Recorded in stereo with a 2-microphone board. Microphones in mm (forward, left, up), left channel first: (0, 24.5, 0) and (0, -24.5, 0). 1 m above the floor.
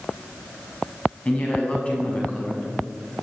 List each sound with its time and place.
1.2 s a woman speaking: 25° left (ahead or behind), 6.5 m; by 2.7 s 30° left (ahead or behind), 7 m